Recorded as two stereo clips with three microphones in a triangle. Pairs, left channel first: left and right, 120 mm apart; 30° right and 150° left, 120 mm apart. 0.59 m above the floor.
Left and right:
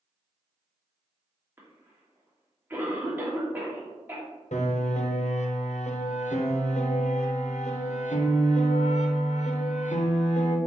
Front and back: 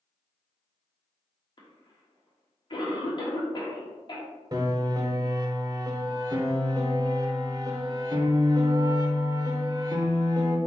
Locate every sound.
1.6 s a cough: 25° right, 1.4 m
4.5 s a piano: 95° left, 0.6 m